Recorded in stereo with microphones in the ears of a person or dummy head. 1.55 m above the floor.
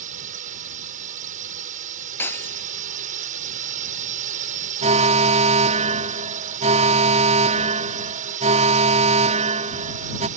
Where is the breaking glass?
15° left (ahead or behind).